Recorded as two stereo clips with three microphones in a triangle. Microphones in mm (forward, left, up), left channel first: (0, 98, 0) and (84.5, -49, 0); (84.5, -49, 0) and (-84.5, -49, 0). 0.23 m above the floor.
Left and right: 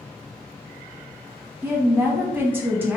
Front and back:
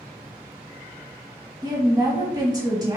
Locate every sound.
1.6 s a woman speaking: 130° right, 1.6 m